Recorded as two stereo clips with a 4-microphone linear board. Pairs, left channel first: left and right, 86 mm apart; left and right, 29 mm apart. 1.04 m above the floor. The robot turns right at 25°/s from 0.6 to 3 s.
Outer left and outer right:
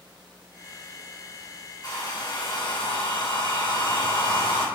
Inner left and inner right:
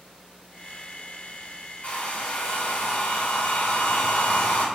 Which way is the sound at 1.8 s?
55° left (ahead or behind).